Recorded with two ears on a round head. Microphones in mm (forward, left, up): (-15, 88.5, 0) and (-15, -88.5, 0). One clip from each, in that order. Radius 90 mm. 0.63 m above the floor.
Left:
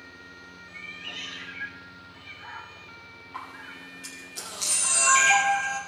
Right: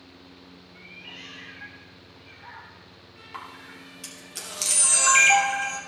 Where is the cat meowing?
85° left, 1.7 m.